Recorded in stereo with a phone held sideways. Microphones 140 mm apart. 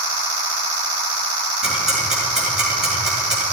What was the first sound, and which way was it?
Ticking, 5° right (ahead or behind).